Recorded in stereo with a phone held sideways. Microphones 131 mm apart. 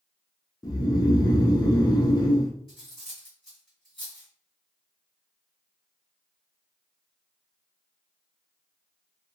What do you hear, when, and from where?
0.6 s snoring: 30° left (ahead or behind), 0.6 m
2.7 s cutlery clinking: 5° right (ahead or behind), 1.8 m